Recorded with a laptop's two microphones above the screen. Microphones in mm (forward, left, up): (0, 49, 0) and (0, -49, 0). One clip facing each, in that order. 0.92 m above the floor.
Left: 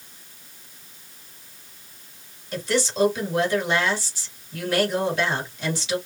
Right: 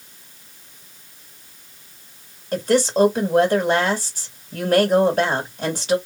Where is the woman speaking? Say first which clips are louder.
Right 7 dB; 50° right (ahead or behind), 1.9 m.